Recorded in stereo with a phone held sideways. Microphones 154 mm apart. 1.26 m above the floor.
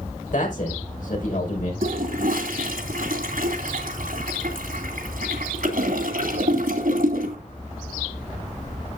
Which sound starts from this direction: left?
A man speaking, at 0.3 s.